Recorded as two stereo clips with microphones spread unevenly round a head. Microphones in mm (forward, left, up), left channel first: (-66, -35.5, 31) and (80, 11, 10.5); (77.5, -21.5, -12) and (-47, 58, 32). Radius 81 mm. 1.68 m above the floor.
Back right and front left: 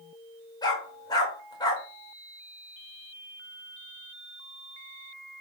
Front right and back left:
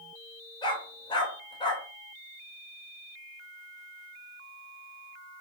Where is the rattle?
I don't hear a rattle.